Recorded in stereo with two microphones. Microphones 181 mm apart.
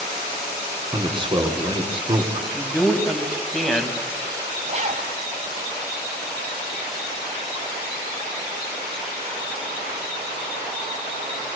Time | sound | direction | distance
0.9 | a man speaking | 30° right (ahead or behind) | 2.5 m
2.5 | a man speaking | centre (ahead or behind) | 2 m
4.7 | a zipper | 45° right (ahead or behind) | 1.7 m